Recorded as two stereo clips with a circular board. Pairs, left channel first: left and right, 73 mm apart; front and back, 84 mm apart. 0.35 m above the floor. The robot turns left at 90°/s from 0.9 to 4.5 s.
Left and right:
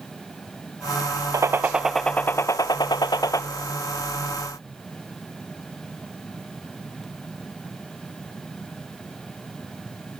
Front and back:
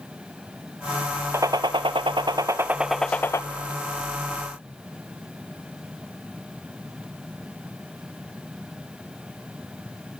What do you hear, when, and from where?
1.3 s a gunshot: 125° right, 0.6 m; by 3.4 s 45° left, 0.6 m